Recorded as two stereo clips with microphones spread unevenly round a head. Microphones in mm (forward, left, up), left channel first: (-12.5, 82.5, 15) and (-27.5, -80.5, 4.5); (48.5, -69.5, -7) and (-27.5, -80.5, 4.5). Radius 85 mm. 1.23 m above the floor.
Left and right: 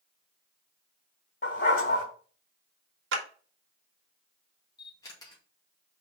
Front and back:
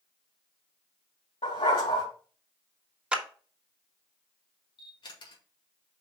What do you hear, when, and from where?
1.4 s a dog barking: 45° left, 2.5 m
3.1 s a clap: 95° right, 1.5 m
4.8 s a camera shutter: 15° left, 2 m